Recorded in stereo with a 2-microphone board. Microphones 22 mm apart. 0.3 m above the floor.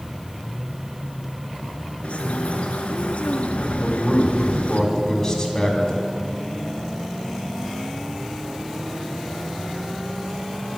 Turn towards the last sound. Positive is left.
turn(degrees=20)  # may be behind; listen again after turning